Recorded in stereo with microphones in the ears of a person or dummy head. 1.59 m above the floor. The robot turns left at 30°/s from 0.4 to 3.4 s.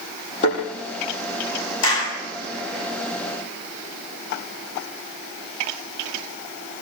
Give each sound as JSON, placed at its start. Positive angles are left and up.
{"t": 0.4, "sound": "a thud", "side_deg": 40, "distance_m": 8.5}
{"t": 1.8, "sound": "a clap", "side_deg": 85, "distance_m": 8.5}